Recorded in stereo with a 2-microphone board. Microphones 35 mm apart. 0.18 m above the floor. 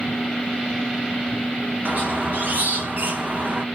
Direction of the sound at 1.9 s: 60° right (ahead or behind).